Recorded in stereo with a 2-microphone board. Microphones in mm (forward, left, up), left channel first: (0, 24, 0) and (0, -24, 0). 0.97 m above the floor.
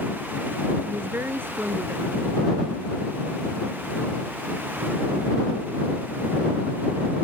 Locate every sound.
0.9 s a woman speaking: 45° right (ahead or behind)